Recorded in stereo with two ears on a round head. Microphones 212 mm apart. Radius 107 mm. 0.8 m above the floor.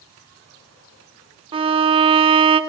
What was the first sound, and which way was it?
A violin, 20° right (ahead or behind).